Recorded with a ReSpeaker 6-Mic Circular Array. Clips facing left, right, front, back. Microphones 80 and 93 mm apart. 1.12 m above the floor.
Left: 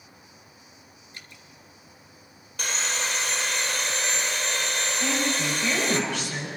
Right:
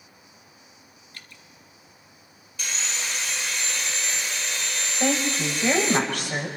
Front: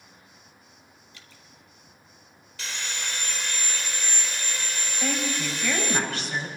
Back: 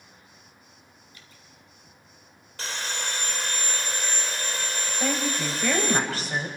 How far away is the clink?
No clink in this recording.